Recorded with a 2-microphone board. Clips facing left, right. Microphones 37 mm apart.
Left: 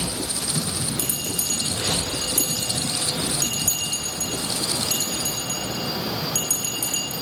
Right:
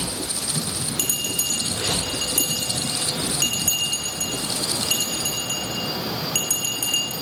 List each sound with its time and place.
1.0 s a bell: 90° right, 5.5 m